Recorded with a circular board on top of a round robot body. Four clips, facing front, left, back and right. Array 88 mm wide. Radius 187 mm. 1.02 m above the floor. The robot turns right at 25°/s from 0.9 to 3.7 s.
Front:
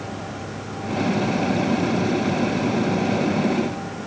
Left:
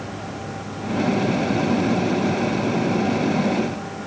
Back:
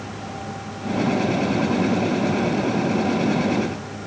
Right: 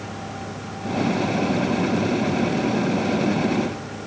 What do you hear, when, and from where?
Only background noise.